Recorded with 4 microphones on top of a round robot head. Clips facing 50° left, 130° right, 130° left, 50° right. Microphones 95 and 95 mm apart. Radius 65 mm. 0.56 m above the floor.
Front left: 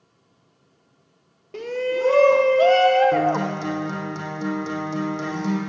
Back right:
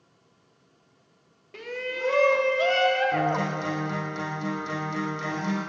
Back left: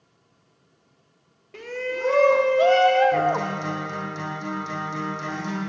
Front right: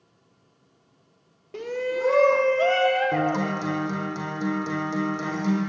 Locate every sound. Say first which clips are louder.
1.5 s a shout: front left 9 dB, front right 3 dB; 5° left, 0.8 m; by 3.6 s 90° left, 1.1 m
3.1 s a guitar: front left 5 dB, back left 2 dB; 5° right, 6.5 m